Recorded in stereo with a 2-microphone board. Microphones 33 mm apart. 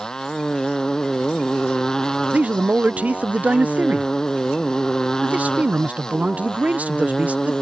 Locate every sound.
0.0 s a motorcycle: 20° left (ahead or behind)
2.3 s a man speaking: 50° right (ahead or behind)